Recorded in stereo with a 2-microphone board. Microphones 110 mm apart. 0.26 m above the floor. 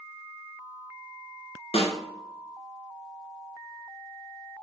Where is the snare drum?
75° left (ahead or behind), 1.3 m.